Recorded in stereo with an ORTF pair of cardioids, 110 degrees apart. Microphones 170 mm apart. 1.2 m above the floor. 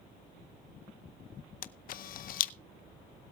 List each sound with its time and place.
1.6 s a camera shutter: 55° left, 0.7 m